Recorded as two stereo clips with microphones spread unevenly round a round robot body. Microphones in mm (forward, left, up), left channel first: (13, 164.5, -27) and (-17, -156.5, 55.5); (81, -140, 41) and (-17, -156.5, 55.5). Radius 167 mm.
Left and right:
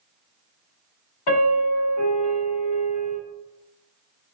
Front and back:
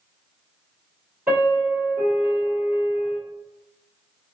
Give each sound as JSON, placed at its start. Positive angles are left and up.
{"t": 1.3, "sound": "a piano", "azimuth_deg": 105, "distance_m": 1.9}